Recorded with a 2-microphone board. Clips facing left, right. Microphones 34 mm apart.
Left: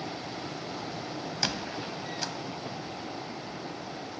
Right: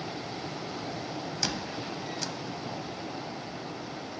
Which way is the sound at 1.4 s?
15° left (ahead or behind).